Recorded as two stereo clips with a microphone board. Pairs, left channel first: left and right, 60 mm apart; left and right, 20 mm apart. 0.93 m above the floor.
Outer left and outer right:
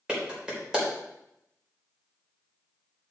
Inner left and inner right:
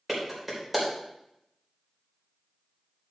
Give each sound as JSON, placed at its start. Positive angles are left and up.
{"t": 0.1, "sound": "a clap", "side_deg": -15, "distance_m": 3.5}